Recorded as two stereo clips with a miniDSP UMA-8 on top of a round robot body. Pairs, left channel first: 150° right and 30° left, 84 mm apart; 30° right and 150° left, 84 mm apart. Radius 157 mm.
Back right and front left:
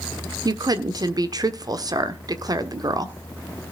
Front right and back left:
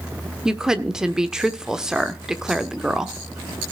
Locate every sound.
0.5 s a woman speaking: 70° left, 1.7 m